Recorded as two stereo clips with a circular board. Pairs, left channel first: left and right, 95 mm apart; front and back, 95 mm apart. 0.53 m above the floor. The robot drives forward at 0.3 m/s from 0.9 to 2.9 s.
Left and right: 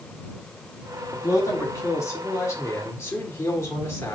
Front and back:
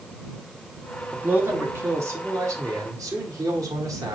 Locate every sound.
1.1 s a man speaking: 120° left, 1.1 m; by 4.2 s 145° left, 1.4 m